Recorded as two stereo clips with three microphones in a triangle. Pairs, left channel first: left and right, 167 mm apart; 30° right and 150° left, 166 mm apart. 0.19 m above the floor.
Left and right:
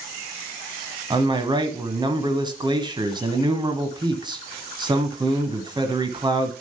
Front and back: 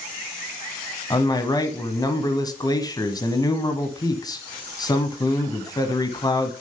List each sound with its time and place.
1.1 s a man speaking: 65° right, 1.2 m